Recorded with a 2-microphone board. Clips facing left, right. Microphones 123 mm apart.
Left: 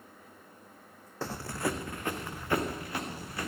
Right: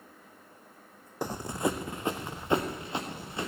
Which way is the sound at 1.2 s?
15° right (ahead or behind).